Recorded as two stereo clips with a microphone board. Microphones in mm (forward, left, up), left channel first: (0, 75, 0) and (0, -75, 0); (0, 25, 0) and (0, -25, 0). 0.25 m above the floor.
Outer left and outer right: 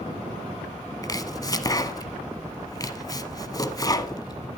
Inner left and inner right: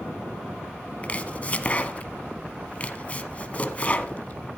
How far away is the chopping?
About 0.9 m.